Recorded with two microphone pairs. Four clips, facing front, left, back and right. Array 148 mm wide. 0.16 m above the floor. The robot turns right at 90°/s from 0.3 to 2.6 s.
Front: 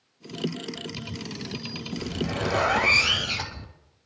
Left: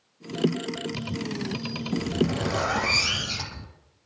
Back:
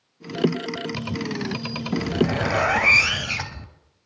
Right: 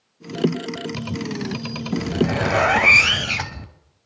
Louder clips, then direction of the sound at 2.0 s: Right 5 dB, back 7 dB; 140° right.